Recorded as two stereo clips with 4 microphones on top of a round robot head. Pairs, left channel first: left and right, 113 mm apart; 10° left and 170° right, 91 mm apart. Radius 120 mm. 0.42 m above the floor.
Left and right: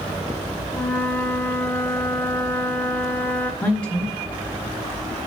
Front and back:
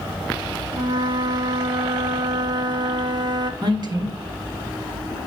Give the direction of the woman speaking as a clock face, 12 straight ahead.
6 o'clock.